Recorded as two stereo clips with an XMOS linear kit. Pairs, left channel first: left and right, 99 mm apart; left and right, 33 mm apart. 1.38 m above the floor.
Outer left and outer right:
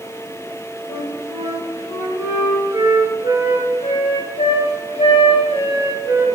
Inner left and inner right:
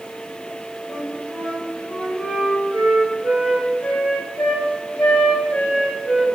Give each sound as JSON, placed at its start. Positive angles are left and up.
{"t": 0.9, "sound": "a flute", "side_deg": 80, "distance_m": 4.0}